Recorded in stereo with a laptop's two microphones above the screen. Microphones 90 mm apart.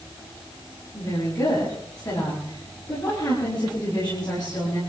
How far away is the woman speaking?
About 7.5 m.